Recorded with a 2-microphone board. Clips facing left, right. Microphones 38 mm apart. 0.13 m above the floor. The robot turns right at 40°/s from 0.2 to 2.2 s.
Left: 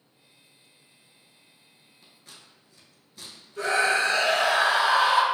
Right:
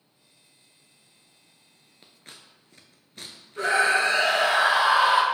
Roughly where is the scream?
Right.